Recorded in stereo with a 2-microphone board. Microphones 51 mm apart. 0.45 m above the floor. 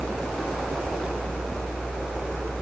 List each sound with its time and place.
Only background noise.